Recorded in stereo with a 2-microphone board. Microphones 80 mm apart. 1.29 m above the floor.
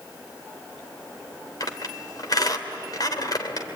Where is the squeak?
55° left (ahead or behind), 2.5 m.